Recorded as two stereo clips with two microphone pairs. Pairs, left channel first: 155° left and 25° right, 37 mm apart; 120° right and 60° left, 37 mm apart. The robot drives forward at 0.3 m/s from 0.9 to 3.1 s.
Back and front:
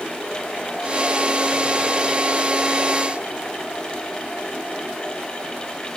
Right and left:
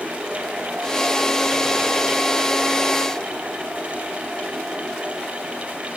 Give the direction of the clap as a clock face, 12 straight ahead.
I don't hear a clap.